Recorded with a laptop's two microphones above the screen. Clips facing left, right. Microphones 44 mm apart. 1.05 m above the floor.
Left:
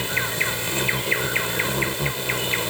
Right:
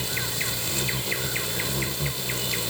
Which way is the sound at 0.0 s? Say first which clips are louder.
Left 6 dB; 35° left (ahead or behind).